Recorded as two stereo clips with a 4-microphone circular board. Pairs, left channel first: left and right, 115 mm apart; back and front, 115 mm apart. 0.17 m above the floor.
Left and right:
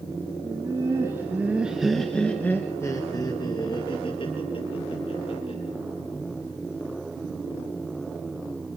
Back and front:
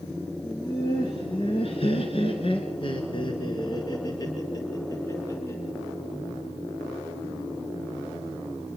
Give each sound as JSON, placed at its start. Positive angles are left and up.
{"t": 0.4, "sound": "laughter", "azimuth_deg": -140, "distance_m": 3.0}